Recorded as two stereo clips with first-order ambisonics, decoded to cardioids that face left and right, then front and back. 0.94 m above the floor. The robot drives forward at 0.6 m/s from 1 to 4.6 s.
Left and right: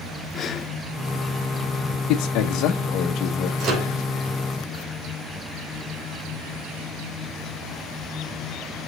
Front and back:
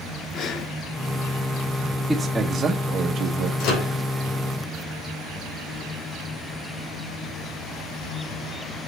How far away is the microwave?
About 3 m.